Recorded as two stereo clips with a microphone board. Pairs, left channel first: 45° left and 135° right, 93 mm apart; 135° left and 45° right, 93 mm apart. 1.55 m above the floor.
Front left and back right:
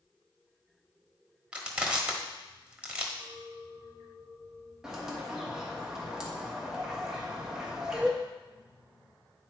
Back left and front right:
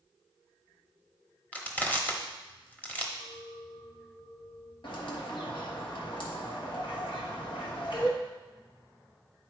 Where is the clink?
130° left, 3.5 m.